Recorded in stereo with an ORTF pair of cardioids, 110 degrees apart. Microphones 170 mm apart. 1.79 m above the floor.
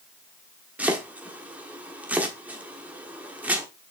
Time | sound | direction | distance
0.8 | chopping | 10° right | 1.3 m